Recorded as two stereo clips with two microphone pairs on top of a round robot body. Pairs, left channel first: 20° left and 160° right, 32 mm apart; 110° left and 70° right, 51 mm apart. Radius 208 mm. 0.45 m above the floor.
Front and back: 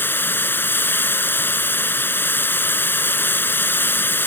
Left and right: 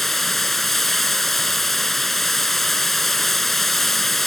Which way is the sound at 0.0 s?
25° left.